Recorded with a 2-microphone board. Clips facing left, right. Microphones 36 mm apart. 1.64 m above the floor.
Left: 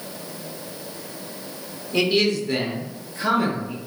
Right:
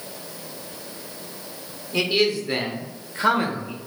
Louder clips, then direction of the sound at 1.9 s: Left 1 dB; centre (ahead or behind).